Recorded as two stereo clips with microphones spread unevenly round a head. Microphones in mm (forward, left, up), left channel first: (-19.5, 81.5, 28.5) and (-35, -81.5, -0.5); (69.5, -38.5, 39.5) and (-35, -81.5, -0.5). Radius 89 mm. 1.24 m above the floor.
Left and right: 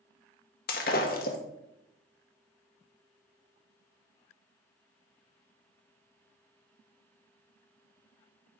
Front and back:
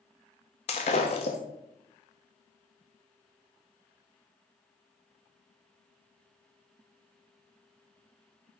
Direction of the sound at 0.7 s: 50° left.